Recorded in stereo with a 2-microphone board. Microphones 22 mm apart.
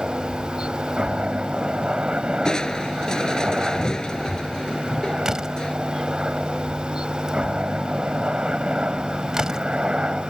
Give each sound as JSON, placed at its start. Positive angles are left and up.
{"t": 0.0, "sound": "a helicopter", "side_deg": -55}
{"t": 2.5, "sound": "crushing", "side_deg": 35}
{"t": 5.2, "sound": "a door slam", "side_deg": -30}